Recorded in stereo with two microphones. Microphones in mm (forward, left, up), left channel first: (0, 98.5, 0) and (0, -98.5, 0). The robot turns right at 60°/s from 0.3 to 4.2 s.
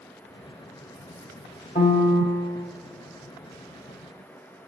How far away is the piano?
About 0.9 m.